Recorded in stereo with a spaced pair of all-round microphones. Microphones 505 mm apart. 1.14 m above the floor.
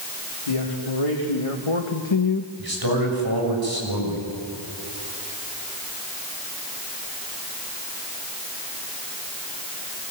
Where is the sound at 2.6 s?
45° right (ahead or behind), 6 m.